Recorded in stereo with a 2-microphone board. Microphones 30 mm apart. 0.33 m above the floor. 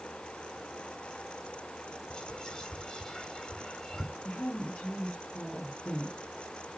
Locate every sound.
2.1 s whispering: 20° left (ahead or behind), 1.6 m
4.2 s a woman speaking: 55° left (ahead or behind), 3 m